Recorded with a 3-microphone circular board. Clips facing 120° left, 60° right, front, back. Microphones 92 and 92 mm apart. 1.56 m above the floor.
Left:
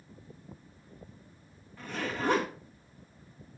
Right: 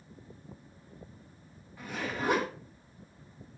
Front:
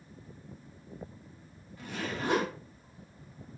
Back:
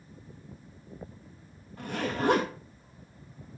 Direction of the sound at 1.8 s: 145° right.